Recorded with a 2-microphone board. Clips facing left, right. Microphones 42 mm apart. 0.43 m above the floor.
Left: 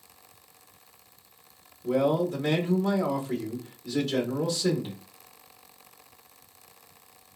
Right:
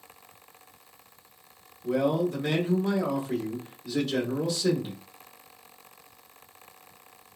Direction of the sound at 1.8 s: Centre (ahead or behind).